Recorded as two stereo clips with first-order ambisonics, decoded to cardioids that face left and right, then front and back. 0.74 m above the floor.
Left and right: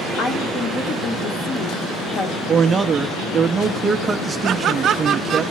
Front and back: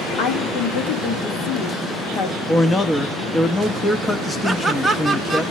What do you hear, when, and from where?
0.2 s a woman speaking: 35° left, 2.5 m
2.5 s a man speaking: 60° right, 0.7 m
4.4 s laughter: 90° right, 0.8 m